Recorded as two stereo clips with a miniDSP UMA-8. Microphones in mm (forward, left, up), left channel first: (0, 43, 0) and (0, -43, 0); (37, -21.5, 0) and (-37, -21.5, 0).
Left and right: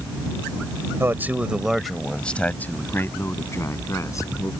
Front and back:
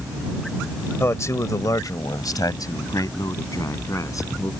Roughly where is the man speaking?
Ahead right.